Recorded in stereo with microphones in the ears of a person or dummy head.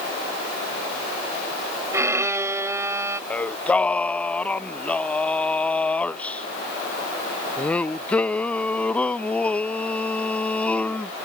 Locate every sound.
1.9 s a violin: 10° right (ahead or behind)
3.3 s singing: centre (ahead or behind)